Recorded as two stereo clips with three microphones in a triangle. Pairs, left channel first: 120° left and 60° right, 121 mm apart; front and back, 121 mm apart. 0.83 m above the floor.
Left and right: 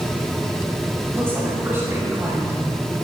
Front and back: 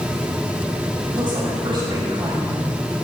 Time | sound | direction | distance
1.1 | a woman speaking | 130° right | 5.5 m